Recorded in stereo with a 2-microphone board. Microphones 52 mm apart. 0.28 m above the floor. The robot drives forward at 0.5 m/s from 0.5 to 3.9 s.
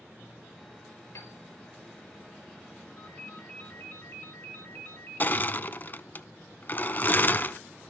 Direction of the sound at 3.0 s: 35° left (ahead or behind).